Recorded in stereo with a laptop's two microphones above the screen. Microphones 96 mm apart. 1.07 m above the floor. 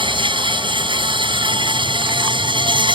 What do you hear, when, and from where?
0.0 s an insect: 60° right (ahead or behind)